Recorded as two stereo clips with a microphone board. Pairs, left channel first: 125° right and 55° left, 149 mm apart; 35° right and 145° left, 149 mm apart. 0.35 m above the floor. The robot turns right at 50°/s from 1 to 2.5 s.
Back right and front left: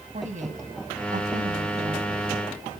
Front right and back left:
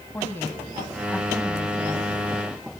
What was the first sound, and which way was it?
A woman speaking, 40° left.